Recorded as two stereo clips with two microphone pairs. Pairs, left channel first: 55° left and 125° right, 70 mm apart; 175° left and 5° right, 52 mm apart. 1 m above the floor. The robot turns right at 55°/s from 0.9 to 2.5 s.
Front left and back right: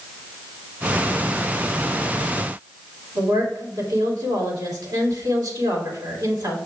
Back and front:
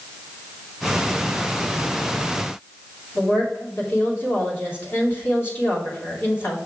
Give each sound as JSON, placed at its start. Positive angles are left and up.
{"t": 3.1, "sound": "a woman speaking", "azimuth_deg": -140, "distance_m": 2.5}